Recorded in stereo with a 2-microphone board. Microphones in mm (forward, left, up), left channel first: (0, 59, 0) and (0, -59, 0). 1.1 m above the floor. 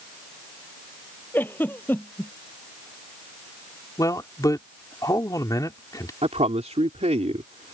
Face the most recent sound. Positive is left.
turn(degrees=-70)  # may be behind; listen again after turning